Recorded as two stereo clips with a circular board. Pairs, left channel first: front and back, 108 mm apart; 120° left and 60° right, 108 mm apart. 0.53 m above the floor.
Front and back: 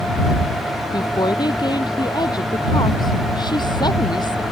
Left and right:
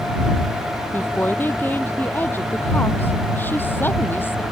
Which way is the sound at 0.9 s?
50° left.